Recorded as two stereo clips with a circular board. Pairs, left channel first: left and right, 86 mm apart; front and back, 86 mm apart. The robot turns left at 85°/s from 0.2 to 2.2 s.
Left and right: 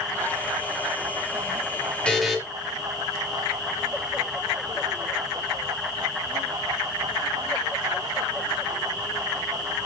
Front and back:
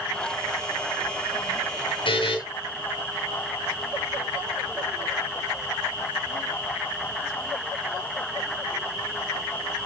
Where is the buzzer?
10° left, 4.5 m; by 2.4 s straight ahead, 4.5 m.